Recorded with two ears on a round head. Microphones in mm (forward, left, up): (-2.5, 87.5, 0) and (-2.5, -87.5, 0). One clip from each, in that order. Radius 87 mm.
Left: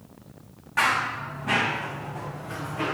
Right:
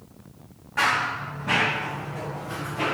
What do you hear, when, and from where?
0.8 s running footsteps: 20° left (ahead or behind), 3 m; by 2.9 s 10° right (ahead or behind), 3.5 m